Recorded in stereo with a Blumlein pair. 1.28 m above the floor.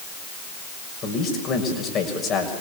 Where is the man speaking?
25° left, 6.5 m.